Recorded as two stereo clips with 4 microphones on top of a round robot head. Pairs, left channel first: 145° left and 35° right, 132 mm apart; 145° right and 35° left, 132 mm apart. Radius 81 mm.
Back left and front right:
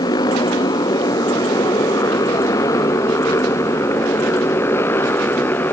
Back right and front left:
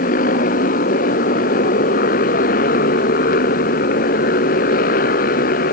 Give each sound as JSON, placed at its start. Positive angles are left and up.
{"t": 0.0, "sound": "a motorcycle", "azimuth_deg": -155}